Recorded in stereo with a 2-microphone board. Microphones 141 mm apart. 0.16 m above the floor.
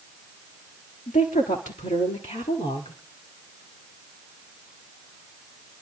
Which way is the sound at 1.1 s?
65° left (ahead or behind).